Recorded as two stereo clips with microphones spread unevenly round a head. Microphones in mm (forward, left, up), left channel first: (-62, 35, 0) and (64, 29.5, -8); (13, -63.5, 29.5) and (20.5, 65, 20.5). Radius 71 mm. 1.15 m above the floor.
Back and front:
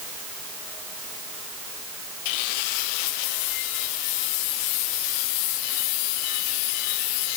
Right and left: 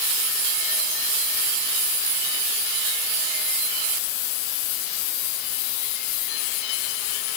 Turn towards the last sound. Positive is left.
No sound to turn to.